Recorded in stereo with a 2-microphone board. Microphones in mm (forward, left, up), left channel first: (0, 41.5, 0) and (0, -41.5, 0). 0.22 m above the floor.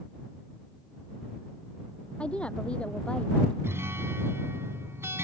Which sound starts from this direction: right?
A guitar, at 3.6 s.